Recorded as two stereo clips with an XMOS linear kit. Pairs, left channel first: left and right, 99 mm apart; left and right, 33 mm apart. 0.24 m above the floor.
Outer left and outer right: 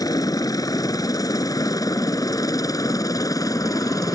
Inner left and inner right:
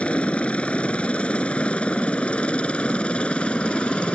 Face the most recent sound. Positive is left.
turn(degrees=35)  # may be behind; listen again after turning